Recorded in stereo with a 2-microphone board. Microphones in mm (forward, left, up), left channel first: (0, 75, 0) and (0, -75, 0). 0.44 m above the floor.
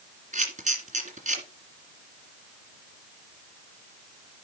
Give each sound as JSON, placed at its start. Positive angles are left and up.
{"t": 0.3, "sound": "a camera shutter", "side_deg": -55, "distance_m": 2.0}